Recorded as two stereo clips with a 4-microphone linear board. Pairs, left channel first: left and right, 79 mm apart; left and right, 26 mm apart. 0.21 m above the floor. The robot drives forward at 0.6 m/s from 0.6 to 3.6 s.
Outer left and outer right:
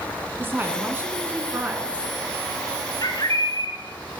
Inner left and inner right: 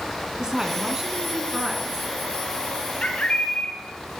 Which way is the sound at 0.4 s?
30° right (ahead or behind).